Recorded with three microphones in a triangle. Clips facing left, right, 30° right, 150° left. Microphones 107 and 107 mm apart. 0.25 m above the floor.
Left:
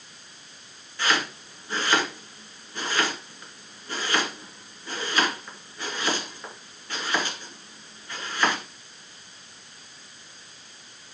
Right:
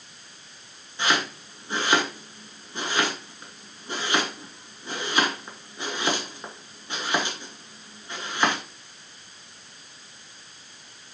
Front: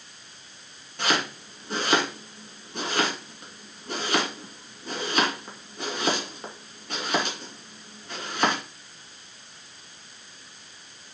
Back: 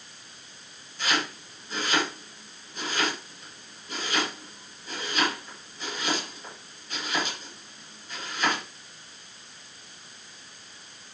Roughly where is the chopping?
Ahead right.